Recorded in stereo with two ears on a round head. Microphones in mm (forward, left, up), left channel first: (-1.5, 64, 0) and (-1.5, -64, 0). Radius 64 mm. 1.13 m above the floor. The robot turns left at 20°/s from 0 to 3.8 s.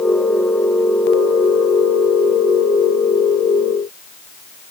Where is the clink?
I don't hear a clink.